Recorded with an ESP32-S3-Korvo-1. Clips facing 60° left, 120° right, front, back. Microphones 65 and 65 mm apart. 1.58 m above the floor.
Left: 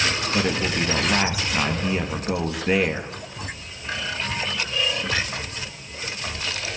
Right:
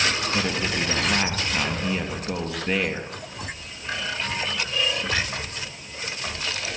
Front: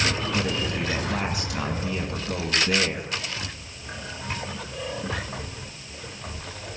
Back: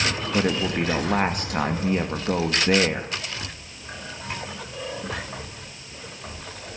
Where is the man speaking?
140° left, 2 m.